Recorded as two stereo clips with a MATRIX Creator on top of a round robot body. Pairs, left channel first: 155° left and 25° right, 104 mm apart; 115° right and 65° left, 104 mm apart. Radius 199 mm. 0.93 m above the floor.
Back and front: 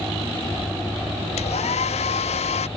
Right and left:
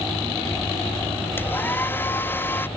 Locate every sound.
1.4 s a hair dryer: 175° left